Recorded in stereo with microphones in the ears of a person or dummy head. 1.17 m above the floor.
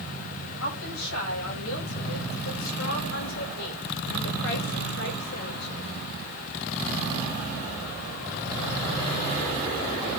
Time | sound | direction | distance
0.6 | a woman speaking | 80° left | 8.5 m